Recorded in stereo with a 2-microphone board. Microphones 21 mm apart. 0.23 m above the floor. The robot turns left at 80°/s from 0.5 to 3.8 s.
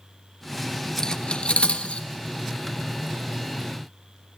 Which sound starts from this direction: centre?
Cutlery clinking, at 1.0 s.